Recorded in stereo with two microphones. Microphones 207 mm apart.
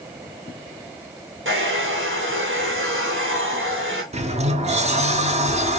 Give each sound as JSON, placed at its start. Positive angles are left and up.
{"t": 1.4, "sound": "a hair dryer", "side_deg": -75, "distance_m": 1.5}
{"t": 4.1, "sound": "a sliding door", "side_deg": -35, "distance_m": 0.6}